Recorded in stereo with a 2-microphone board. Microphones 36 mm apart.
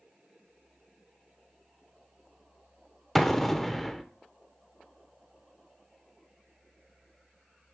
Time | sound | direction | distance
3.1 | an explosion | 10° left (ahead or behind) | 0.6 m